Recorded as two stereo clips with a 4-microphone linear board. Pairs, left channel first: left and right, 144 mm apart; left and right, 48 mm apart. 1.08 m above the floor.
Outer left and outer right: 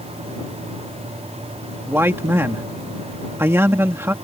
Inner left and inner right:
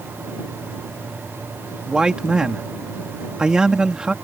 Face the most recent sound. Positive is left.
turn(degrees=-15)  # may be behind; listen again after turning